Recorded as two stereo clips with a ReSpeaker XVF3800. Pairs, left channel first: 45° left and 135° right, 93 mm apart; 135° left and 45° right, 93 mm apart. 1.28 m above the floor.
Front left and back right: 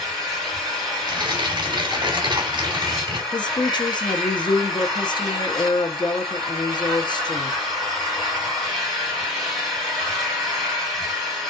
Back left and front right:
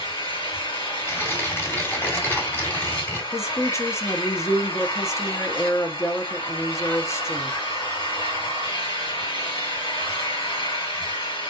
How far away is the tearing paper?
About 2 m.